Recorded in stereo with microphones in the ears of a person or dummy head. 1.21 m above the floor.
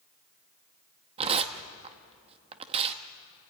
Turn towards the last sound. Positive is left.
turn(degrees=-30)  # may be behind; listen again after turning